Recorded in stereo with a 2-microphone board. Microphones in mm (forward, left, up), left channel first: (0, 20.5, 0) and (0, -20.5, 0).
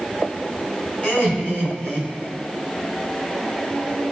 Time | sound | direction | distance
1.0 | laughter | 45° left (ahead or behind) | 3.5 m